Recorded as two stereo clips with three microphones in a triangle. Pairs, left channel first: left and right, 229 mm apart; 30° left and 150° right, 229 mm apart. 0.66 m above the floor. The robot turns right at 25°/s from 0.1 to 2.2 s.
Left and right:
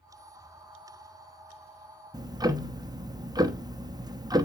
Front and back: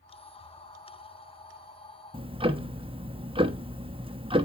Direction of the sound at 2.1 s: 135° right.